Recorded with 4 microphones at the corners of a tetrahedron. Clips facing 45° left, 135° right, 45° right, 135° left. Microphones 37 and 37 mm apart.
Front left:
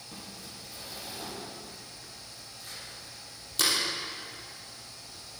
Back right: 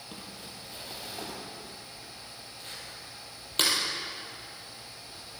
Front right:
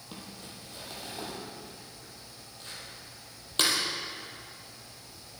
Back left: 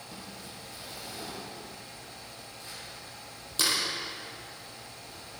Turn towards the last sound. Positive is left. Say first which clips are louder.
# even, front right 2 dB
turn(degrees=-90)